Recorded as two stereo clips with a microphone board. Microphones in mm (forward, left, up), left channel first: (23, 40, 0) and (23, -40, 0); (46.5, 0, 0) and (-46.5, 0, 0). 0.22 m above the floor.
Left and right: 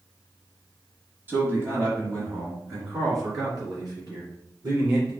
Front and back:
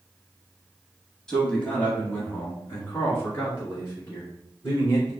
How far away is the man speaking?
About 1.2 m.